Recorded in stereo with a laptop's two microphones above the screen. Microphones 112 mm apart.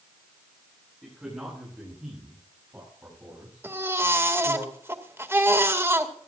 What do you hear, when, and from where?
1.0 s a man speaking: 5° right (ahead or behind), 8.5 m; by 4.6 s 30° right (ahead or behind), 8 m
3.6 s a baby crying: 25° right (ahead or behind), 2 m